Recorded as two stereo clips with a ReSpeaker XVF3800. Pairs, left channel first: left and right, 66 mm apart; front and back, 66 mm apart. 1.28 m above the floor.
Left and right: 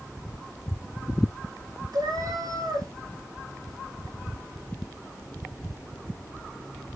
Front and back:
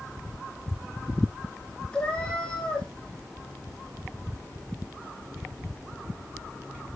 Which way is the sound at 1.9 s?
75° right.